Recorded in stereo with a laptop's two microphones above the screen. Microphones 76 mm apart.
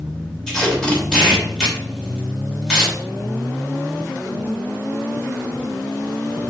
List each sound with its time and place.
0.5 s tape being pulled: 10° left (ahead or behind), 2.5 m